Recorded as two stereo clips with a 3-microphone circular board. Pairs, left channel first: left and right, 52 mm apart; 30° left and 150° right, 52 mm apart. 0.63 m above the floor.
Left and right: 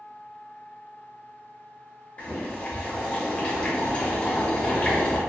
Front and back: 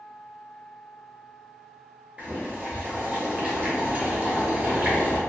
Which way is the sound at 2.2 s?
150° left.